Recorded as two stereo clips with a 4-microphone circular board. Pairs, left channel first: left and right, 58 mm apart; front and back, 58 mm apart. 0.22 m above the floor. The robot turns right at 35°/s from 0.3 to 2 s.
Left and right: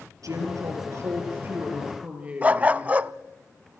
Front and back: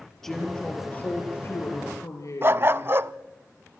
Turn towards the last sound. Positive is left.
turn(degrees=-150)